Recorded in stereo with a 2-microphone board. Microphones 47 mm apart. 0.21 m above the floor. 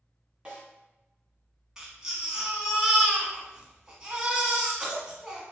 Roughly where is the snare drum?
Centre.